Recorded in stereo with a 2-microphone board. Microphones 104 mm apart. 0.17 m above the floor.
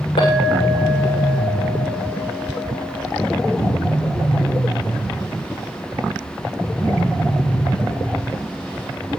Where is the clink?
70° left (ahead or behind), 8.5 m.